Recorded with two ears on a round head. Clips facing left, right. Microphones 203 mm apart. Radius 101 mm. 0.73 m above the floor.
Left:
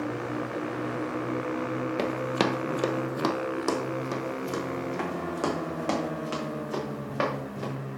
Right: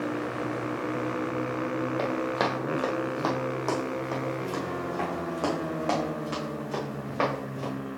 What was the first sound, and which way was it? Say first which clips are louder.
Running footsteps: left 1 dB; 35° left (ahead or behind).